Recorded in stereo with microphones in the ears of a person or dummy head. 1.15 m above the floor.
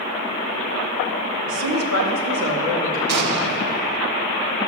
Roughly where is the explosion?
Right.